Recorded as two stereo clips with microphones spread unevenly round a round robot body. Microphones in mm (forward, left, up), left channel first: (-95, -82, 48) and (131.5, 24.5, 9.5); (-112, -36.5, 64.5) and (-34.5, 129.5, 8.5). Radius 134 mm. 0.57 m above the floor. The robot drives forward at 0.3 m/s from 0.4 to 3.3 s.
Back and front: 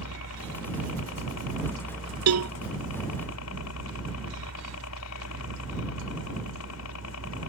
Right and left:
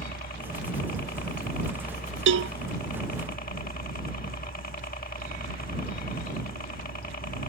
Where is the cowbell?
60° left.